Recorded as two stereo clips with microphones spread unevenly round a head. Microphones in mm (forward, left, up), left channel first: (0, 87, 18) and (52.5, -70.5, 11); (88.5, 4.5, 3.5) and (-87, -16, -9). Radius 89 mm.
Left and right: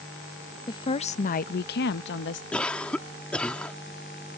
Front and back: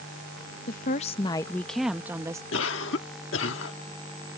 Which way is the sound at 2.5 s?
25° left.